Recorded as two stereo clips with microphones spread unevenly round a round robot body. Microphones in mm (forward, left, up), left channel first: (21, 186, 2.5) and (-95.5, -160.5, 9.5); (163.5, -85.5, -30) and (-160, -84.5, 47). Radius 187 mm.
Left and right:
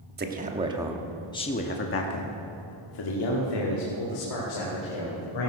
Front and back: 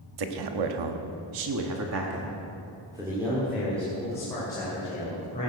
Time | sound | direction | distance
0.2 | a man speaking | 170° right | 1.3 m